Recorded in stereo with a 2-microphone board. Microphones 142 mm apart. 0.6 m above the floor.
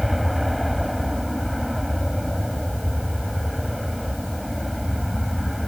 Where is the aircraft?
Centre (ahead or behind).